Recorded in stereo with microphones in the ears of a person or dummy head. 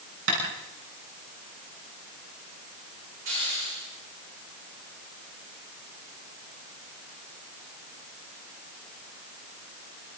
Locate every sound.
0.3 s tapping: 60° right (ahead or behind), 8.5 m
3.2 s a hiss: 40° right (ahead or behind), 9 m